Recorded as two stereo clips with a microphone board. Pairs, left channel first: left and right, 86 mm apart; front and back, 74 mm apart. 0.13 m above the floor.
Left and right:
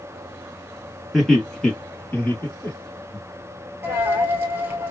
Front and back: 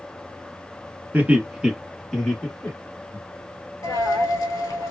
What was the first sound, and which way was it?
Laughter, straight behind.